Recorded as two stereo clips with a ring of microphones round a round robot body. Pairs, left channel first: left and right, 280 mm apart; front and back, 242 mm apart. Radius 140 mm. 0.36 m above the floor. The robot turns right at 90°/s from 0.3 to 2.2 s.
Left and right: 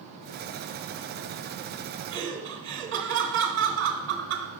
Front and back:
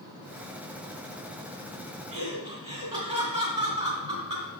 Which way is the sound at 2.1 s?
125° right.